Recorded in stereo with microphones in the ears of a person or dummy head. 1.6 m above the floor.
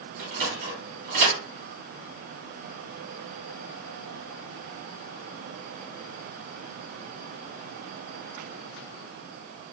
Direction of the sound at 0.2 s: 60° right (ahead or behind).